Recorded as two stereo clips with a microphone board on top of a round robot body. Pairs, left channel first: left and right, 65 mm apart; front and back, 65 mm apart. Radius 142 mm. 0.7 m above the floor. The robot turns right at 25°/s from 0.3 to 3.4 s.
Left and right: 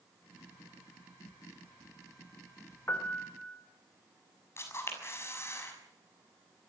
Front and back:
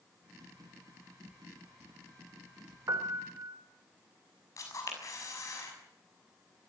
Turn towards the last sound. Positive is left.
turn(degrees=40)